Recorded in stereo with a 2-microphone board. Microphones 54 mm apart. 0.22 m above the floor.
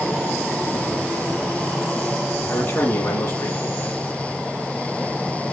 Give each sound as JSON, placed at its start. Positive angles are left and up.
{"t": 2.5, "sound": "a man speaking", "side_deg": 35, "distance_m": 2.5}